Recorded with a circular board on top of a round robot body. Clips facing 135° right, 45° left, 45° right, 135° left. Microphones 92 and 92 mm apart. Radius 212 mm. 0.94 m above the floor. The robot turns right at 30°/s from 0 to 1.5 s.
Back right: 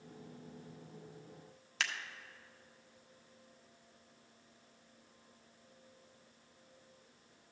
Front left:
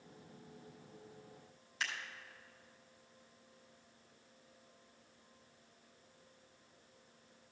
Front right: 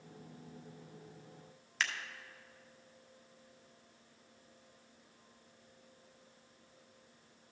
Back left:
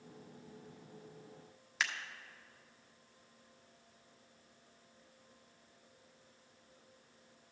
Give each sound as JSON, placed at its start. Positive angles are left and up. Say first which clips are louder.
{"t": 1.8, "sound": "scissors", "louder": "back right 2 dB, even", "azimuth_deg": -140, "distance_m": 1.1}